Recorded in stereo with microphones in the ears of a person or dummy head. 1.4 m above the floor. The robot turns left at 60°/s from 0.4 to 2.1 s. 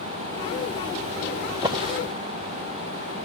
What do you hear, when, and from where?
1.5 s a drawer: 15° right (ahead or behind), 0.9 m; by 2.0 s 35° right (ahead or behind), 0.9 m